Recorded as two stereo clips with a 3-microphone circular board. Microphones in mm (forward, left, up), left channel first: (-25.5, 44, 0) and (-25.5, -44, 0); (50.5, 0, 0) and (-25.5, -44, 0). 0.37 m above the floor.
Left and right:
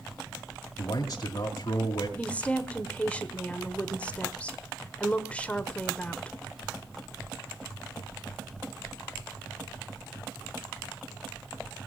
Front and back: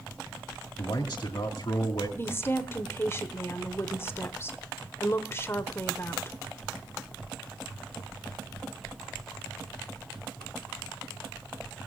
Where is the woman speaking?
35° left, 1.2 m.